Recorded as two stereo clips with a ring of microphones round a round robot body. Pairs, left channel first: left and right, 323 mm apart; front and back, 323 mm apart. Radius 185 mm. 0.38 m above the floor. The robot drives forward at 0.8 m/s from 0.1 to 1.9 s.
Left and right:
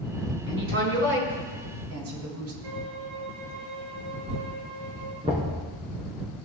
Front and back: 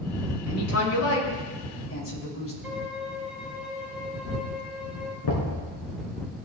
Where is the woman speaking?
40° right, 5.5 m; by 2.5 s 45° right, 5 m.